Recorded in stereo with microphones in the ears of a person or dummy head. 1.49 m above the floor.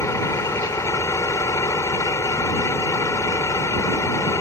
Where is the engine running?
15° left (ahead or behind).